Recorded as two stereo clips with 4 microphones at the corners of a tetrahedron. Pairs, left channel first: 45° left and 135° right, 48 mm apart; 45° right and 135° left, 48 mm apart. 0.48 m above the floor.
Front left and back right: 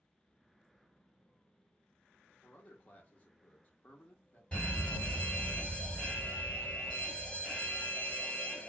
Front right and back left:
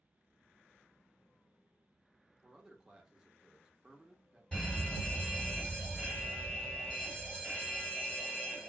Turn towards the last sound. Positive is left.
turn(degrees=5)